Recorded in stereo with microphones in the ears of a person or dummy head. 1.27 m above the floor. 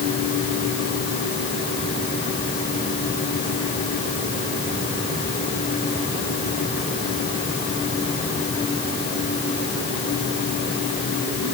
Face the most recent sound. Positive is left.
No sound to turn to.